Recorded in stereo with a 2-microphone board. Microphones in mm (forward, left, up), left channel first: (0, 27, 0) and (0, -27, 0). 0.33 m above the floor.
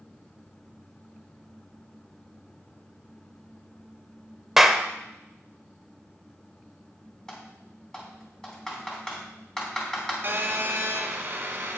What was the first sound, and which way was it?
A clap, 5° right (ahead or behind).